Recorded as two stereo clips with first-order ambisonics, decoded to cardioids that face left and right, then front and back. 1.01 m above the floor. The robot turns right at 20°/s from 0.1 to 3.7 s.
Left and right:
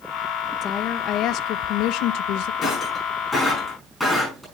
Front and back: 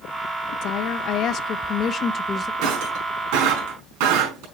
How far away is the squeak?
I don't hear a squeak.